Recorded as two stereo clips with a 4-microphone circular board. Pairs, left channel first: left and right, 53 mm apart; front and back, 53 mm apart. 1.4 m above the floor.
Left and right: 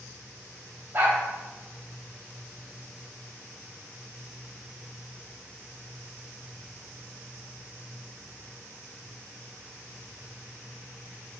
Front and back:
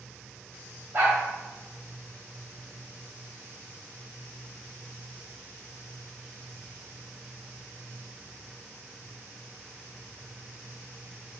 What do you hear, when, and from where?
0.9 s a dog barking: 135° right, 2.5 m